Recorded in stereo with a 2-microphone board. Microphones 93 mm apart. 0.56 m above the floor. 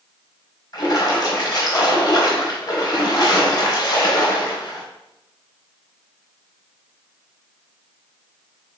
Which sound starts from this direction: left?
A splash, at 0.7 s.